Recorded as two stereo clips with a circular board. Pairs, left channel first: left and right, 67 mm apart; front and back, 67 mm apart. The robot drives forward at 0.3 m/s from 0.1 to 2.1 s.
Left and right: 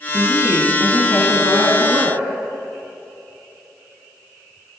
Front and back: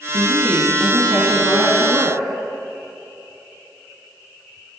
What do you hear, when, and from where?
0.1 s a woman speaking: 155° right, 2 m; by 2.3 s 160° right, 2.5 m